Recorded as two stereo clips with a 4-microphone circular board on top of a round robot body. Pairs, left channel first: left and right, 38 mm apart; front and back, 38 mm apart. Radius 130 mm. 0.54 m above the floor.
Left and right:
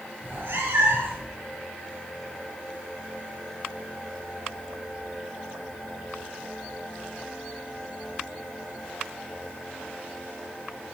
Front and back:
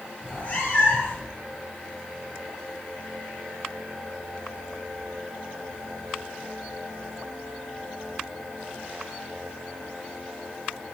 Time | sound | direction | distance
0.2 | a cat meowing | 50° right | 6 m